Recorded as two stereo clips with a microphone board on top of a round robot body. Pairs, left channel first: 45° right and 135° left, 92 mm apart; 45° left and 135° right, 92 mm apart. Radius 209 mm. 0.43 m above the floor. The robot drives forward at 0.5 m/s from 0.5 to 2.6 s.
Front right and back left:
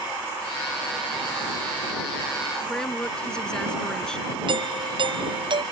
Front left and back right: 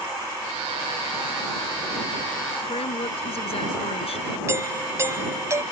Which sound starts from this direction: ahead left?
A woman speaking, at 2.6 s.